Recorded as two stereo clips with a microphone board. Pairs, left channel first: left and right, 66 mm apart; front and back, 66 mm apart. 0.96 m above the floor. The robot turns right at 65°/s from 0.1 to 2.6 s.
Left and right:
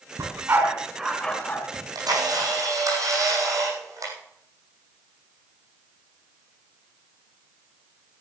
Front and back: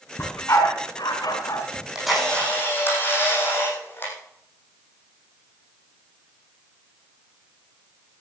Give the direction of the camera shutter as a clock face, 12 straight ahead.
4 o'clock.